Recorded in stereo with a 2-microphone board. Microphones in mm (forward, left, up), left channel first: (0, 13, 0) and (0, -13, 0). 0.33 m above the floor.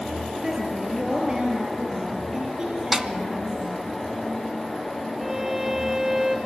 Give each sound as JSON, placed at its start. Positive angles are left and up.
{"t": 0.4, "sound": "a woman speaking", "side_deg": -10, "distance_m": 5.0}
{"t": 2.9, "sound": "a snare drum", "side_deg": -20, "distance_m": 1.0}
{"t": 5.2, "sound": "a violin", "side_deg": -20, "distance_m": 2.0}